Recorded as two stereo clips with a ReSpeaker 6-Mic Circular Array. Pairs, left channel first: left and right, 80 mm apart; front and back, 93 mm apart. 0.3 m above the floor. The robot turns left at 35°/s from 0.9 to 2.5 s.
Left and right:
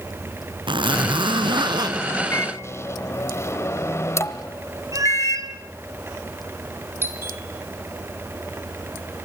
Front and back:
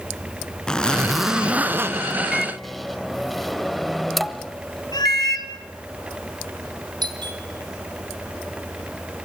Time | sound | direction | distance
0.7 | a zipper | 85° right | 0.8 m
2.3 | a microwave | 95° left | 1.1 m
4.9 | a cat meowing | 45° right | 2 m
7.0 | a doorbell | 150° right | 3.5 m